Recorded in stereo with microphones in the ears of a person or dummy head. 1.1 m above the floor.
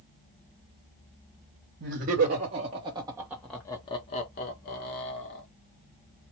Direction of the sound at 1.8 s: 55° right (ahead or behind).